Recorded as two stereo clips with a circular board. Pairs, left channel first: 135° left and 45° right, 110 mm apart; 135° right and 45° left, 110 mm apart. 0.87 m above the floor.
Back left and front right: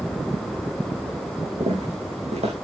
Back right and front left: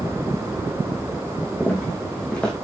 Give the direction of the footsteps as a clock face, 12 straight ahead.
2 o'clock.